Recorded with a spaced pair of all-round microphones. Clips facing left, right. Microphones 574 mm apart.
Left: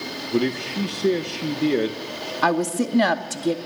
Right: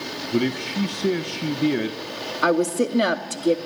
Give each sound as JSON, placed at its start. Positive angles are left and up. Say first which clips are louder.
{"t": 0.3, "sound": "a man speaking", "louder": "even", "side_deg": -15, "distance_m": 1.2}
{"t": 2.4, "sound": "a woman speaking", "louder": "right 2 dB", "side_deg": 20, "distance_m": 1.8}